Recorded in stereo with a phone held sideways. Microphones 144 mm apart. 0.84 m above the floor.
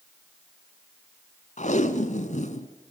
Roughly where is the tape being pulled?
Left.